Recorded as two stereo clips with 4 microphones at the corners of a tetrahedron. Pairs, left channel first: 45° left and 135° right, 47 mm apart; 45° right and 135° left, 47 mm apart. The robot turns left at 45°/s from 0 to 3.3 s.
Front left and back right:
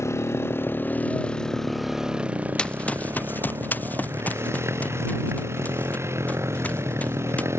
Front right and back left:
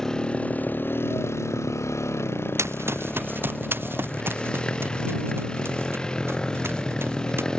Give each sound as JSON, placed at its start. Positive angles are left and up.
{"t": 0.0, "sound": "a motorcycle", "azimuth_deg": 35}
{"t": 2.6, "sound": "running footsteps", "azimuth_deg": 115}